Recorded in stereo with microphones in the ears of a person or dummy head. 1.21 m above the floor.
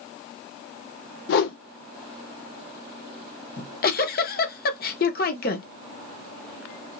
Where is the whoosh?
55° left (ahead or behind), 0.8 m.